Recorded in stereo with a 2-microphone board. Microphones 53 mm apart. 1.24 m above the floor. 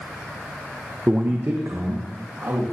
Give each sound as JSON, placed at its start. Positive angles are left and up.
{"t": 1.1, "sound": "a man speaking", "side_deg": -25, "distance_m": 0.5}